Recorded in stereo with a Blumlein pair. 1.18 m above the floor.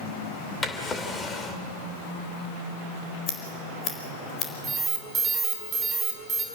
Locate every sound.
0.6 s a drawer: 15° left, 2.5 m
3.3 s scissors: 30° left, 4 m
4.6 s an alarm: 20° right, 5 m